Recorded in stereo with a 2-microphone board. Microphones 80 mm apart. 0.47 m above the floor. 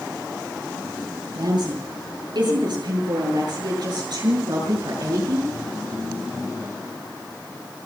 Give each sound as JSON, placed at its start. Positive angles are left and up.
{"t": 1.4, "sound": "a woman speaking", "side_deg": -70, "distance_m": 8.5}